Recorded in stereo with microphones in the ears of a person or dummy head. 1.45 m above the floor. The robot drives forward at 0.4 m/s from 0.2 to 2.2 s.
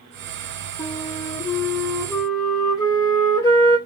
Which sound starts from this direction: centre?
A flute, at 0.8 s.